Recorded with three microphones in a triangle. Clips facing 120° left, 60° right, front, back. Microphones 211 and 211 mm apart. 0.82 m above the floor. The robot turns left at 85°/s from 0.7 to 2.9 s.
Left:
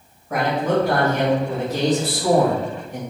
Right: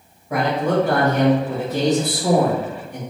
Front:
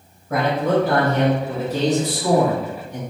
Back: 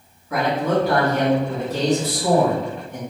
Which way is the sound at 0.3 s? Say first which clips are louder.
Right 1 dB, front 1 dB; 15° left.